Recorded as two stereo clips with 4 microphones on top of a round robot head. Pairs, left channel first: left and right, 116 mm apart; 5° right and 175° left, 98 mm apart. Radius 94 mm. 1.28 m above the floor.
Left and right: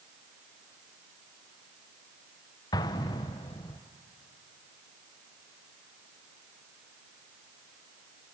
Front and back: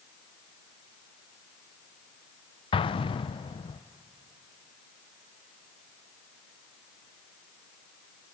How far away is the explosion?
About 0.5 m.